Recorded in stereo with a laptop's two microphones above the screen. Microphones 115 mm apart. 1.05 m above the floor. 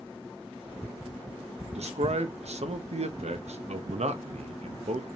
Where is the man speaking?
75° right (ahead or behind), 0.8 m.